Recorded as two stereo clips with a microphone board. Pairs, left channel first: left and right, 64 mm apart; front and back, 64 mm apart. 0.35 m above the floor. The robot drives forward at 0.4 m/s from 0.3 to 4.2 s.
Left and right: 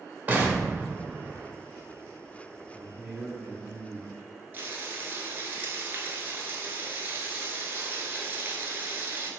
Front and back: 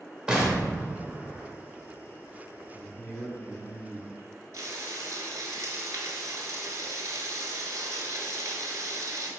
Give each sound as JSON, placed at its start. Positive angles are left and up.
{"t": 0.3, "sound": "an explosion", "azimuth_deg": -115, "distance_m": 0.7}
{"t": 2.7, "sound": "a man speaking", "azimuth_deg": -150, "distance_m": 0.9}
{"t": 4.5, "sound": "frying", "azimuth_deg": -145, "distance_m": 0.8}